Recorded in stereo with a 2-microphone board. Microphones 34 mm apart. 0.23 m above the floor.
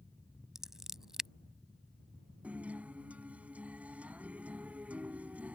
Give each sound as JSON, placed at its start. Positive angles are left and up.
{"t": 0.6, "sound": "scissors", "side_deg": -15}
{"t": 2.4, "sound": "a guitar", "side_deg": -50}